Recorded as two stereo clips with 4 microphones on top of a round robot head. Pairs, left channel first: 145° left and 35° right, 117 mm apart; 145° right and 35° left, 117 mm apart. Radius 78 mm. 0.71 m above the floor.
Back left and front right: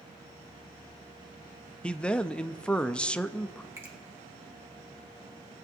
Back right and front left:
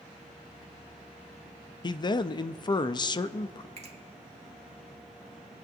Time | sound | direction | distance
1.8 | a man speaking | 140° right | 0.5 m
3.8 | a finger snap | 30° left | 1.8 m